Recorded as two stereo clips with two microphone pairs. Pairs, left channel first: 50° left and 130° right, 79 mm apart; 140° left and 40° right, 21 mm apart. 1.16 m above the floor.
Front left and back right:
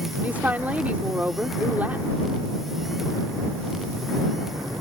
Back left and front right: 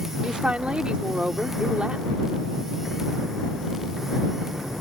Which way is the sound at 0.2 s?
60° right.